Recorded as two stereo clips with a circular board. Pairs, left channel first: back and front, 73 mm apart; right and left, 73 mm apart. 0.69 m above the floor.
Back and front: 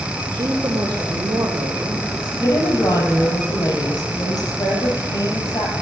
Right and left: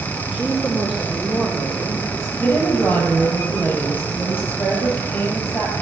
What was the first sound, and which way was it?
A woman speaking, 10° right.